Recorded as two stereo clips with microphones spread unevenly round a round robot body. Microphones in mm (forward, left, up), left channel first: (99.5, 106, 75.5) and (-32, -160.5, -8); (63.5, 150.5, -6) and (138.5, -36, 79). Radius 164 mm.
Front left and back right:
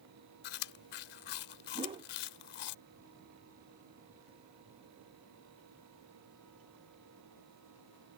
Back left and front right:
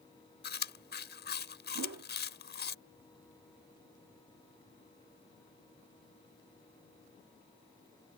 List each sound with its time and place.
0.4 s chewing: 75° left
1.8 s a whoosh: 60° right